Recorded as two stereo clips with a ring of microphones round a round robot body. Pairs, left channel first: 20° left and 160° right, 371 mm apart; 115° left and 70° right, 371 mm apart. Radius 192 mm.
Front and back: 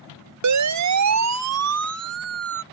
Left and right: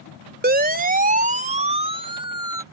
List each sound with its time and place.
0.4 s a siren: 130° right; by 2.6 s 145° right